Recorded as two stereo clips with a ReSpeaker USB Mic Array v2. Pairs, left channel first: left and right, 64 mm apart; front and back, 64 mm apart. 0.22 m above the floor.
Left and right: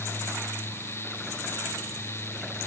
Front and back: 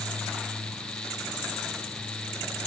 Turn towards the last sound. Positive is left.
No sound to turn to.